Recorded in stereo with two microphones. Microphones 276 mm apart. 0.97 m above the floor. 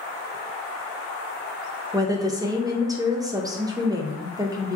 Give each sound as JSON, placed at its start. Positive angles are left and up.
{"t": 1.9, "sound": "a woman speaking", "side_deg": -15, "distance_m": 0.6}